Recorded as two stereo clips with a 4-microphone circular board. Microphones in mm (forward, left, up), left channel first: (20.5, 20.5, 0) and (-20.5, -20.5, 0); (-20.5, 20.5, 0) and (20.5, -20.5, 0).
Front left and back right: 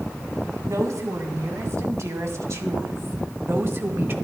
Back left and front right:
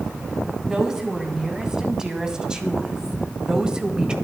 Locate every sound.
0.6 s a woman speaking: 125° right, 3 m; by 4.1 s 110° right, 1.4 m